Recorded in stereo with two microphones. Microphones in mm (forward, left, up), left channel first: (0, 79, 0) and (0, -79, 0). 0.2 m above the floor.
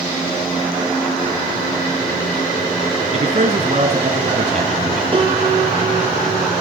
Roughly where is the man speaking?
Right.